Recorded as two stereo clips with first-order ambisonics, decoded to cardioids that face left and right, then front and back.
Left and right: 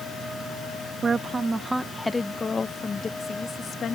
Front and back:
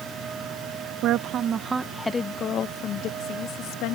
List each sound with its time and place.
1.0 s a woman speaking: 160° right; by 4.0 s 25° left